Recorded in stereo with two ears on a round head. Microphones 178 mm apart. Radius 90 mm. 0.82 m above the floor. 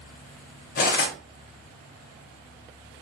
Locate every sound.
0.8 s cutlery clinking: 50° left (ahead or behind), 0.6 m